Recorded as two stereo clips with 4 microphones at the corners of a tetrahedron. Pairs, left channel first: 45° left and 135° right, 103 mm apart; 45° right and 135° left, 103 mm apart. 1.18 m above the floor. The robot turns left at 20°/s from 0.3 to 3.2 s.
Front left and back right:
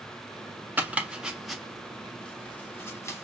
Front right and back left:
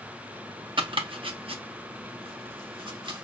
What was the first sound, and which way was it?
Chopping, 150° left.